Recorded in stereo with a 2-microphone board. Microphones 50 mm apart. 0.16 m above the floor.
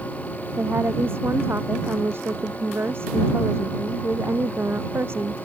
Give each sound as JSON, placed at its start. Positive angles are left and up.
{"t": 0.6, "sound": "a woman speaking", "side_deg": -55}